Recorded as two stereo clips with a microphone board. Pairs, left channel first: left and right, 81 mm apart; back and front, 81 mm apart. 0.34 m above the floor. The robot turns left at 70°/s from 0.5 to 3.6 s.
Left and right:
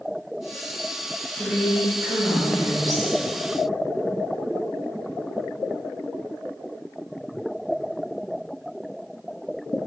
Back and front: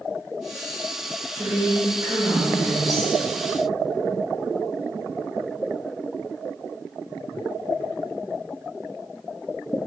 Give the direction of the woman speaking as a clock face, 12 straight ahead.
11 o'clock.